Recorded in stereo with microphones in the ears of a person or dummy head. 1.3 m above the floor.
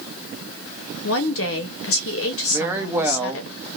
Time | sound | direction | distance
1.0 | a woman speaking | 60° left (ahead or behind) | 0.9 m
2.5 | a woman speaking | 15° right (ahead or behind) | 0.7 m